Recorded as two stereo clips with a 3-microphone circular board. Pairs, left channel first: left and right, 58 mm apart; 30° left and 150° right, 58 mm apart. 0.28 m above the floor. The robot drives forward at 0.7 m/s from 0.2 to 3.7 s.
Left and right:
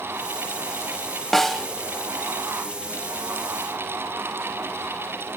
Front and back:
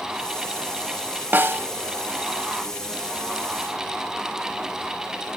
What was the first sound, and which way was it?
A snare drum, 175° left.